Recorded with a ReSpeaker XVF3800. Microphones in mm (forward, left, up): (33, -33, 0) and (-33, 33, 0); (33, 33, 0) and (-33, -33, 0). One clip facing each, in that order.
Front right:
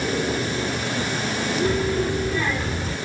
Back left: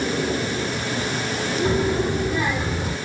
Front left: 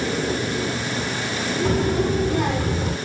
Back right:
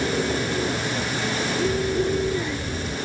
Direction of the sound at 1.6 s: 70° left.